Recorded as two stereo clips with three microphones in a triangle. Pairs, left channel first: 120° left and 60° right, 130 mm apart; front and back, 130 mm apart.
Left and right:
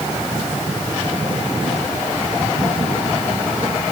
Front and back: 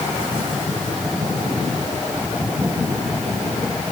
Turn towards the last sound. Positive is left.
No sound to turn to.